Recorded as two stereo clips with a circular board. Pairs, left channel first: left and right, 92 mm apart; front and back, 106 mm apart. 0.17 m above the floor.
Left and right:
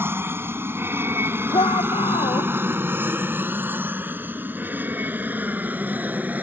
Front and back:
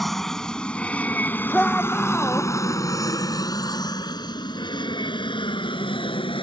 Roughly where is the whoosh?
I don't hear a whoosh.